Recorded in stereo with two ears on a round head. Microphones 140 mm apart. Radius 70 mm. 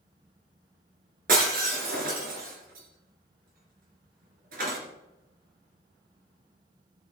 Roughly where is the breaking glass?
Right.